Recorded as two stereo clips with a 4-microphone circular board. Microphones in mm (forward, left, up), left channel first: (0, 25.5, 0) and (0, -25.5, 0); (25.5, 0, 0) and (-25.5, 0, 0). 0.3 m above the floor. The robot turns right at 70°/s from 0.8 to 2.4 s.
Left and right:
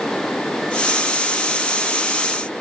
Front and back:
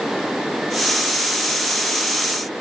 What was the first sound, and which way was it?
Only background noise.